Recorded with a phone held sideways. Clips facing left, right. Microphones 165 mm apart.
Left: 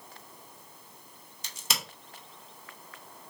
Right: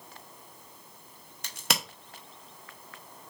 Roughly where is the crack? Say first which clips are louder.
Right 5 dB; right.